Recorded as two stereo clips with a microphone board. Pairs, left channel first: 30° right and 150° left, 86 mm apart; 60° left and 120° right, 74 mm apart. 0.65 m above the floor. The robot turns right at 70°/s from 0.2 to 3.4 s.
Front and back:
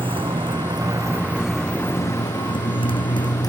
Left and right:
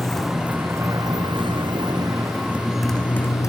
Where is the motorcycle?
145° left; by 3.5 s 10° left.